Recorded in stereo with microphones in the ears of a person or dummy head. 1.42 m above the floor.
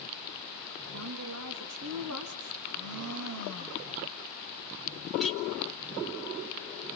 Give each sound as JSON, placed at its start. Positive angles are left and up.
{"t": 0.9, "sound": "a woman speaking", "side_deg": -85, "distance_m": 2.0}
{"t": 2.6, "sound": "a blender", "side_deg": -75, "distance_m": 4.5}
{"t": 5.2, "sound": "a clink", "side_deg": 0, "distance_m": 1.4}